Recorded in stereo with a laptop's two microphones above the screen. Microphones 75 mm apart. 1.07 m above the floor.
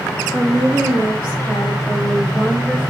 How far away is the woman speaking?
About 3.5 m.